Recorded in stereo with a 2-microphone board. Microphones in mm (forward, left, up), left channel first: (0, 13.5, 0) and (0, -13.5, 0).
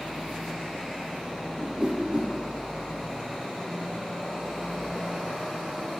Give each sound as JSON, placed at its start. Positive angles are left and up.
{"t": 1.6, "sound": "a whoosh", "side_deg": -30, "distance_m": 2.5}